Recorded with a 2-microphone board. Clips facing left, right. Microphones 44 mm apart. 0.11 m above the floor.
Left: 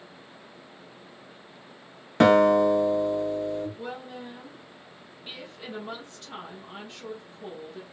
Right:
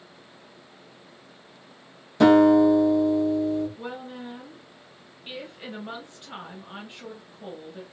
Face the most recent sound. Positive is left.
turn(degrees=-20)  # may be behind; listen again after turning